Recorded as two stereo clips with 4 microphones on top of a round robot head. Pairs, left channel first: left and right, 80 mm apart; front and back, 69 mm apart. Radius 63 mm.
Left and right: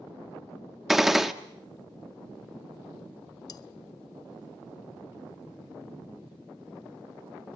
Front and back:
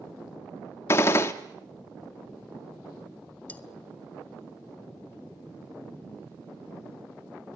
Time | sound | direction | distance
0.9 | a gunshot | 5° right | 1.0 m
3.5 | cutlery clinking | 65° left | 0.9 m